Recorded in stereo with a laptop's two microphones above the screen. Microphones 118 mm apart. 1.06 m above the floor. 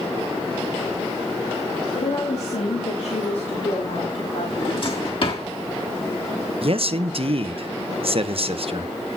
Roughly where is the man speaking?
Right.